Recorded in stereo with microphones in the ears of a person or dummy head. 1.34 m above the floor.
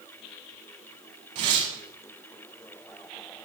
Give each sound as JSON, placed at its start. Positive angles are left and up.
{"t": 1.4, "sound": "tearing paper", "side_deg": -30, "distance_m": 2.0}